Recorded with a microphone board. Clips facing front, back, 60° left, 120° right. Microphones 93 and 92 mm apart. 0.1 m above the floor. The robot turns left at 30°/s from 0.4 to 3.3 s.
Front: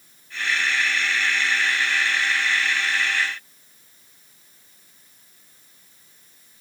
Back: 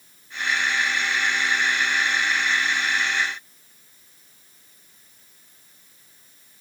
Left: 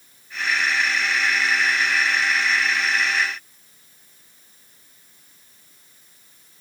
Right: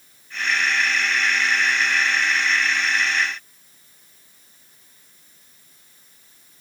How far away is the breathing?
I don't hear breathing.